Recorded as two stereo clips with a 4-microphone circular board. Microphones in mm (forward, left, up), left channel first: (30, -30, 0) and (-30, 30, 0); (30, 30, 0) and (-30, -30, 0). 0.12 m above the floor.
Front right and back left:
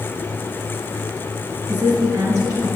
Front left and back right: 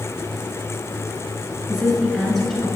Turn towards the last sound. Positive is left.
turn(degrees=110)